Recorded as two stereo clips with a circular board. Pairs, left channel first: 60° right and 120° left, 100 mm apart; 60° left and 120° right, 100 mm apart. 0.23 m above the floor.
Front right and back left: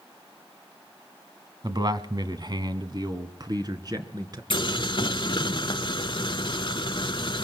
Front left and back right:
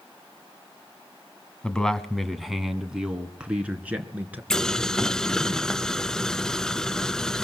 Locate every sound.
1.6 s a man speaking: 140° left, 1.5 m; by 4.4 s 170° left, 3 m
4.5 s boiling: 25° right, 0.5 m